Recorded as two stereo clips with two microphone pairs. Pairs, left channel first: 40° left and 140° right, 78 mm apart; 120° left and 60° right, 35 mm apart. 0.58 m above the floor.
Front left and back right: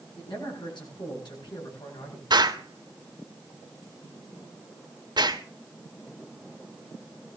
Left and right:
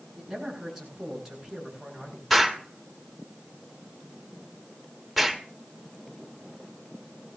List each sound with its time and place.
0.2 s a man speaking: 20° left, 9 m
2.3 s an explosion: 150° right, 2 m